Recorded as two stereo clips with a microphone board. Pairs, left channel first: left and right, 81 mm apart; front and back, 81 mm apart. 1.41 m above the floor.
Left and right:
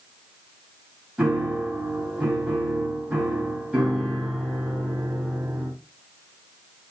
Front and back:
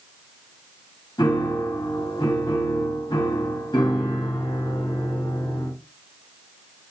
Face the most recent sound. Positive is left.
turn(degrees=-15)